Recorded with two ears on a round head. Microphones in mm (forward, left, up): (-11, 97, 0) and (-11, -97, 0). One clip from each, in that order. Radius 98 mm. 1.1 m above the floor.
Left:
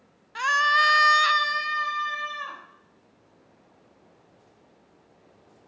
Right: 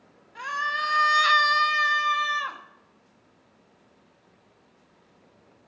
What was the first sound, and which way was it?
A scream, 55° left (ahead or behind).